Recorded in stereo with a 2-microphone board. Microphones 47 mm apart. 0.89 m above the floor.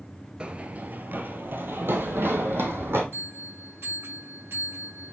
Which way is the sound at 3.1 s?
55° right (ahead or behind).